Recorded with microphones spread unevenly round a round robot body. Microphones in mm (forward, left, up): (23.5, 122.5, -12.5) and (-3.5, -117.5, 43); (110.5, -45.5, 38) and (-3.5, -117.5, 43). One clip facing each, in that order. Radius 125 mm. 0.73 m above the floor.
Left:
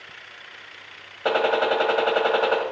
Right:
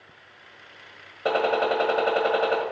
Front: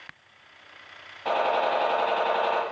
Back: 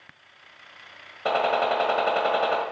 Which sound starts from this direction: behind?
A gunshot, at 1.2 s.